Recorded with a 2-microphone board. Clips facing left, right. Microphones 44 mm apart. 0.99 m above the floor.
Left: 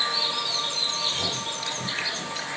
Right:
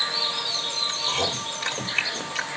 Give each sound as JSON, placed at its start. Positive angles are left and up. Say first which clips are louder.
{"t": 0.9, "sound": "chewing", "louder": "right 2 dB", "side_deg": -65, "distance_m": 2.0}